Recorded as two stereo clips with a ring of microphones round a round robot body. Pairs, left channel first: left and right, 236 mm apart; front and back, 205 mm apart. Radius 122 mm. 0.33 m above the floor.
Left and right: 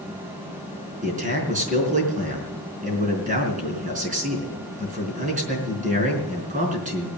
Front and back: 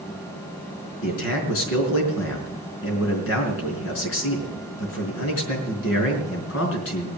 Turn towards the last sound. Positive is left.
turn(degrees=-30)